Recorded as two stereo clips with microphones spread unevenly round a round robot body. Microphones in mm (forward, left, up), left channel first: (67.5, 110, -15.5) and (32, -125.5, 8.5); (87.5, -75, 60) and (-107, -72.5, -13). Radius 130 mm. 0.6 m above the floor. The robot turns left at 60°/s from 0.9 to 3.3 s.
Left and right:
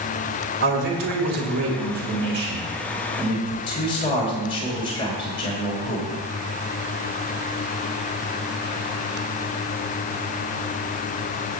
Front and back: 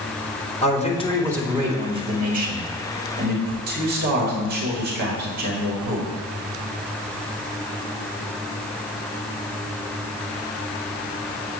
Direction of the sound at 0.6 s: 65° right.